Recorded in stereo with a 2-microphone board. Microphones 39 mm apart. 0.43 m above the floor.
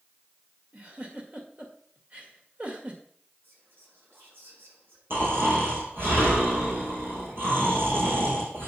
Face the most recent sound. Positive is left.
turn(degrees=-75)  # may be behind; listen again after turning